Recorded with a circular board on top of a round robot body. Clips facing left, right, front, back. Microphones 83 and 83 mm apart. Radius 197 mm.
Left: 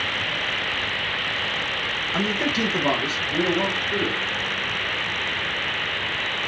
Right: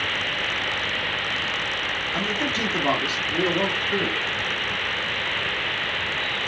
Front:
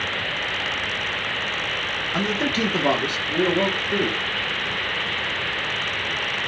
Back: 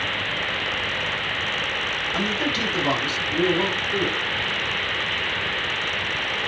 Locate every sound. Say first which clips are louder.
2.1 s a man speaking: left 4 dB, front 3 dB; 55° left, 0.9 m; by 4.2 s 20° right, 1.8 m